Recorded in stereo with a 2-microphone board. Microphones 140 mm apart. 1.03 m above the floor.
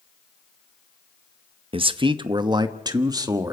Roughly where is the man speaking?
Right.